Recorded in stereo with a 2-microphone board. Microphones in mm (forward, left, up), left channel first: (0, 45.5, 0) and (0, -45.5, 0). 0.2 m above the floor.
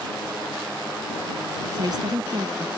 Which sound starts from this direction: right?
A woman speaking, at 1.7 s.